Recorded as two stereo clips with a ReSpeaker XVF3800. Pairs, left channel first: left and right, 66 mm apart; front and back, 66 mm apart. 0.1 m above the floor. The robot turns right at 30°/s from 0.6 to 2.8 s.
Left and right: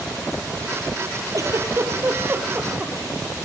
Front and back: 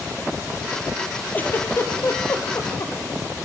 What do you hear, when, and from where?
1.3 s a giggle: 65° right, 3 m; by 2.9 s 20° right, 3 m